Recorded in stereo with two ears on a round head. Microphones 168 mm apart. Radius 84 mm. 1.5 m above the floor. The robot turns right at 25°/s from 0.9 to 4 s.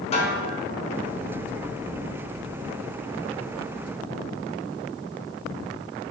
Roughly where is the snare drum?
Left.